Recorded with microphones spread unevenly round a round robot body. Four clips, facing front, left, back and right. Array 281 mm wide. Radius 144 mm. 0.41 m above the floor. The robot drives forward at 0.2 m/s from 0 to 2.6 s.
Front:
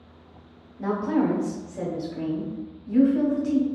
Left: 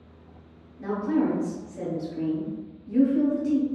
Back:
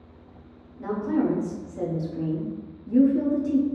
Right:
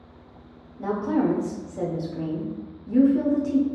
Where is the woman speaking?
55° right, 0.9 m; by 3.6 s 105° right, 0.9 m.